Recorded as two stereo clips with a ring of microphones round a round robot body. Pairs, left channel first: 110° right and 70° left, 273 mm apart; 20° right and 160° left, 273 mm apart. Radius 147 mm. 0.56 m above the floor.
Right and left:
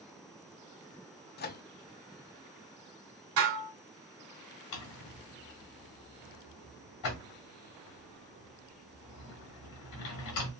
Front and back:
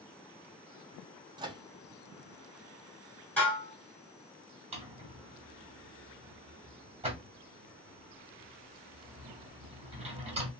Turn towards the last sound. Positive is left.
turn(degrees=-135)